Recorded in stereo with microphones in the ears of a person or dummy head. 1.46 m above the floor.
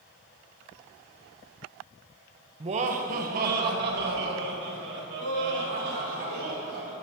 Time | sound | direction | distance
2.6 | laughter | 35° right (ahead or behind) | 0.9 m